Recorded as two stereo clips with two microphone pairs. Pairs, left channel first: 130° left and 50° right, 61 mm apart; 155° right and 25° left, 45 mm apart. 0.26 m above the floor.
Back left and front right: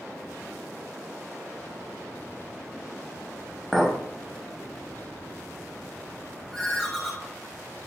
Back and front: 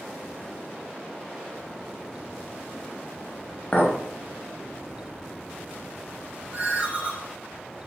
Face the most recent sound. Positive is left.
turn(degrees=40)